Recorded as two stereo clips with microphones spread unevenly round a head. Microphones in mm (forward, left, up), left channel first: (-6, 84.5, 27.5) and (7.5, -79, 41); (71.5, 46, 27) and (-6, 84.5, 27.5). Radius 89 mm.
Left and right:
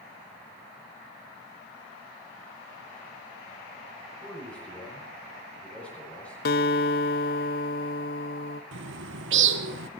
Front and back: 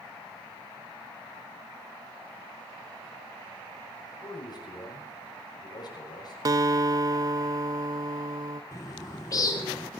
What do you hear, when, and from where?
4.2 s a man speaking: 10° left, 6 m
6.5 s a guitar: 120° left, 0.6 m
8.7 s a bird: 90° right, 1.1 m